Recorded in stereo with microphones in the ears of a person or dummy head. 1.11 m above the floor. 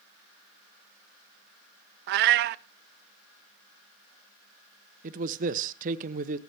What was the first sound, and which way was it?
A cat meowing, 55° right (ahead or behind).